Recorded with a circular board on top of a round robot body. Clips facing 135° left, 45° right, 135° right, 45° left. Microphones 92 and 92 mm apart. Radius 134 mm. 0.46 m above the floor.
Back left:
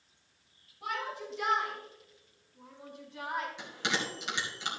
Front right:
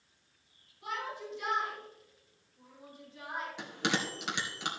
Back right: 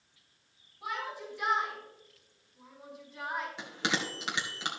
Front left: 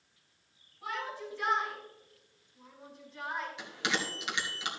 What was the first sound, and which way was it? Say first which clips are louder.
A shout: back left 2 dB, even; 150° left.